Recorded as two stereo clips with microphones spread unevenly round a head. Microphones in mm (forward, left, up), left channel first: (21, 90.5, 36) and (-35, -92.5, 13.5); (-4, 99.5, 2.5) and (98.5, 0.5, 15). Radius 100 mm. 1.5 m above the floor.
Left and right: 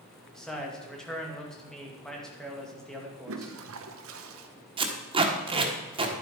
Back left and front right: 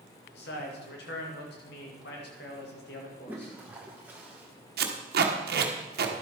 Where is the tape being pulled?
40° right, 1.4 m.